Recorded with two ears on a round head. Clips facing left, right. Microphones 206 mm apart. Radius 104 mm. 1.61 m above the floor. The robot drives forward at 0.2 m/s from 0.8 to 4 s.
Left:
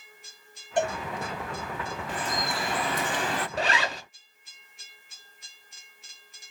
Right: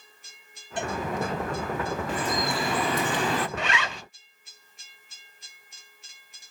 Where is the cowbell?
40° left (ahead or behind), 1.6 m.